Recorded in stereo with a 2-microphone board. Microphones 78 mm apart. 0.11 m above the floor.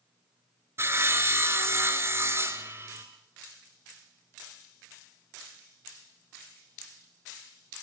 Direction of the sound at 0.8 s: 35° right (ahead or behind).